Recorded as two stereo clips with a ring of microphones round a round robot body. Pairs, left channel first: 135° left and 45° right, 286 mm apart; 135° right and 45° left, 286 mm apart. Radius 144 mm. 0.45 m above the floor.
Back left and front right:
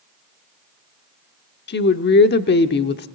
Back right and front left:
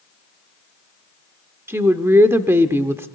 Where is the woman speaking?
120° left, 0.8 m.